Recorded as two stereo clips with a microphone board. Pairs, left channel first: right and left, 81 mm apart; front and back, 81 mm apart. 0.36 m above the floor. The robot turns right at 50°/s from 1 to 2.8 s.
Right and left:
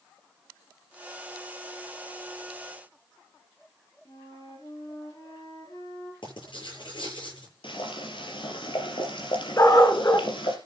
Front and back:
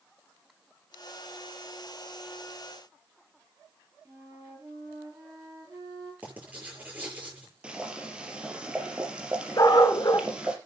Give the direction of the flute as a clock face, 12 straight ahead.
4 o'clock.